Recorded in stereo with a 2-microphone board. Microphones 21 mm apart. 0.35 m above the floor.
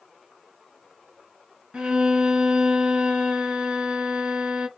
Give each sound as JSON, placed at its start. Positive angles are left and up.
{"t": 1.7, "sound": "a violin", "side_deg": -55, "distance_m": 1.0}